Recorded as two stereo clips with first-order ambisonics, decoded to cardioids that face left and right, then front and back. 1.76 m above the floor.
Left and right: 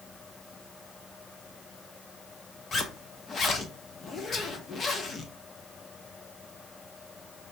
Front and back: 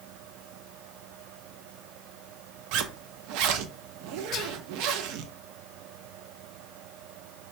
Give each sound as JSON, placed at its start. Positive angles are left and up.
{"t": 2.7, "sound": "a zipper", "azimuth_deg": 160, "distance_m": 0.6}
{"t": 4.3, "sound": "whispering", "azimuth_deg": 30, "distance_m": 0.6}